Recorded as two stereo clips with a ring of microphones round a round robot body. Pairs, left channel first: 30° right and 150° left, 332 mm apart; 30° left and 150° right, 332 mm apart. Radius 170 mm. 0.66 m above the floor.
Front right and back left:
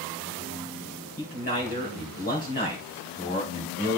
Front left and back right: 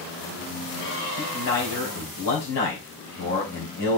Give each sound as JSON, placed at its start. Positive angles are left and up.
{"t": 1.2, "sound": "a man speaking", "azimuth_deg": 35, "distance_m": 3.5}